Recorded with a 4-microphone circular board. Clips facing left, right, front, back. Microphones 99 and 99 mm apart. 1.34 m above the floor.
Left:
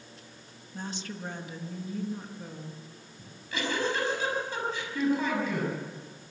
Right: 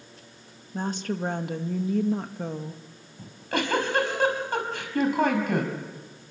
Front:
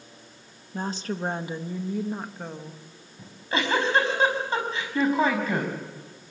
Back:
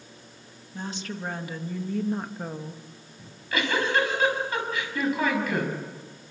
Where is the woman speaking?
45° right, 1.9 m; by 2.8 s 105° right, 1.8 m.